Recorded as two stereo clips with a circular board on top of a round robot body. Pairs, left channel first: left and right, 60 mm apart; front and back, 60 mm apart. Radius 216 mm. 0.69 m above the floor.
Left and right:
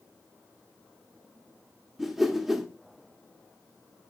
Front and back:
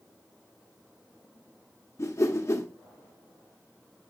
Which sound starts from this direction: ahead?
A whoosh, at 2.0 s.